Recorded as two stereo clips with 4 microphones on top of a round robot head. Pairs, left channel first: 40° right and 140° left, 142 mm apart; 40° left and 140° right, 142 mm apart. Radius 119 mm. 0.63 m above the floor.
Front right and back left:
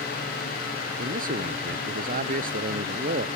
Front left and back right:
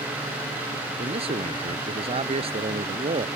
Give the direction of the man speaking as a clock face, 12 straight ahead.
6 o'clock.